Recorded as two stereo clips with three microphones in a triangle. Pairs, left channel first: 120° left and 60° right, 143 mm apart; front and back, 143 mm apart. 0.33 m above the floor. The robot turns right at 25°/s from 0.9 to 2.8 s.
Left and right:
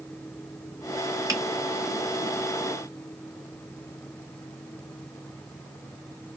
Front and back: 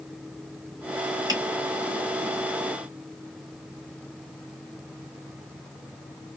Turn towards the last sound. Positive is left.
turn(degrees=-85)